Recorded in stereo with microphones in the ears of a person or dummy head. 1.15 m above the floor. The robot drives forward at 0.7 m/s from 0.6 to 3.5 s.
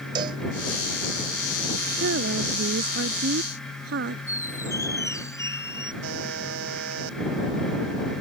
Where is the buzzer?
75° right (ahead or behind).